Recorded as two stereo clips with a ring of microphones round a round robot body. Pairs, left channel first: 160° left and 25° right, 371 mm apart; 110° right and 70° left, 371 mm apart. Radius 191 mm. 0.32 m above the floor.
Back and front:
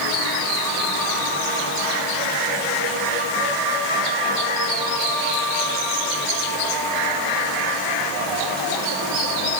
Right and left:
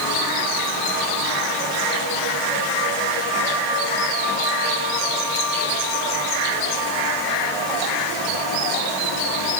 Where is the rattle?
No rattle in this recording.